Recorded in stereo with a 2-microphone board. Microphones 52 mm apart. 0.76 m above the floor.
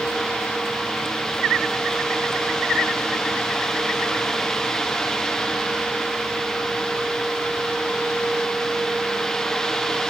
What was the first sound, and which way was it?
Only background noise.